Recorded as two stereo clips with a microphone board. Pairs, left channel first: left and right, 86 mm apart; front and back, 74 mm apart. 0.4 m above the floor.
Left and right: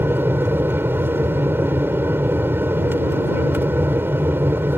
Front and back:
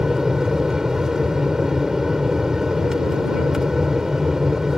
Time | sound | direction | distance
0.0 | an aircraft | 105° right | ?